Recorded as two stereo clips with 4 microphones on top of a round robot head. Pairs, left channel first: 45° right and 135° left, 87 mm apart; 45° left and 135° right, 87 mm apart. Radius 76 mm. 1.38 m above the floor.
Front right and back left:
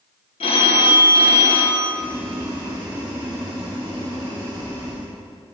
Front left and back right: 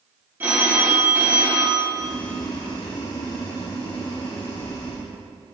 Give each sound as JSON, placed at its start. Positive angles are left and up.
{"t": 0.4, "sound": "a phone ringing", "azimuth_deg": -65, "distance_m": 1.2}
{"t": 1.9, "sound": "boiling", "azimuth_deg": 90, "distance_m": 2.5}